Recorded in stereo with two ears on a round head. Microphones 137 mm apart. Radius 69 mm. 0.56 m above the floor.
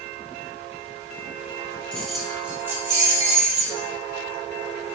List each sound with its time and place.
1.9 s keys jangling: 5° left (ahead or behind), 0.9 m; by 3.9 s 30° right (ahead or behind), 1.6 m